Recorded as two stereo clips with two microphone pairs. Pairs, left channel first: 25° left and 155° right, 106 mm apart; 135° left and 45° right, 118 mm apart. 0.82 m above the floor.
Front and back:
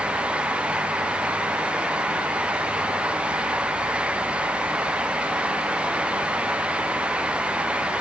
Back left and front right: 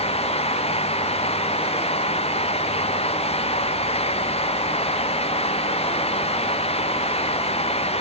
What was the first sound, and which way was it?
Only background noise.